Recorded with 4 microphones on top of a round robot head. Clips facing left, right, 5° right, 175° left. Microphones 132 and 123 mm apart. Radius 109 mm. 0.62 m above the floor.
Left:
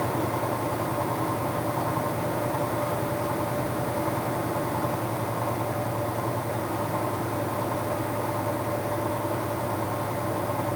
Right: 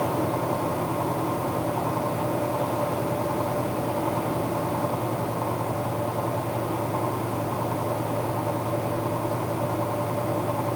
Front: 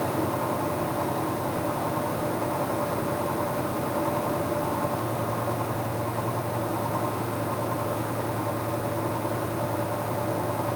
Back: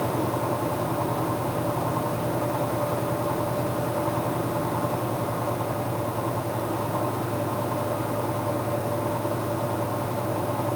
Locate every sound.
Only background noise.